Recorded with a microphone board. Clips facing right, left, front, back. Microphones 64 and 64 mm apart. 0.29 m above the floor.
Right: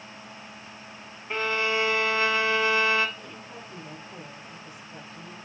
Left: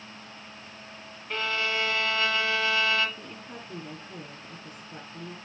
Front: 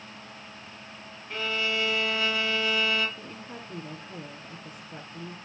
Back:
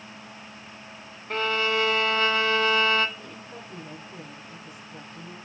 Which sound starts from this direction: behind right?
A violin, at 1.3 s.